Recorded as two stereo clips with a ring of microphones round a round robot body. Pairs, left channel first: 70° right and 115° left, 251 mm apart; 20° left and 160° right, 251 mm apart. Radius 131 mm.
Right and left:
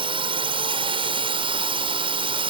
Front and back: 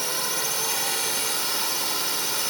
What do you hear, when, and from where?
0.0 s a drone: 110° left